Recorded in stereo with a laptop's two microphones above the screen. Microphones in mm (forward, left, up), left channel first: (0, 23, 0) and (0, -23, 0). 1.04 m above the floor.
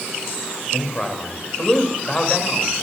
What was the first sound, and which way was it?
A man speaking, 20° left (ahead or behind).